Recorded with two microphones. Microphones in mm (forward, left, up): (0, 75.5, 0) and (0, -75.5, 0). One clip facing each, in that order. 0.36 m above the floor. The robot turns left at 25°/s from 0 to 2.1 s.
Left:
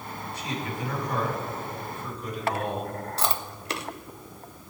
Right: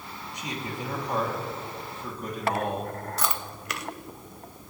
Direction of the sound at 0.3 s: 20° right.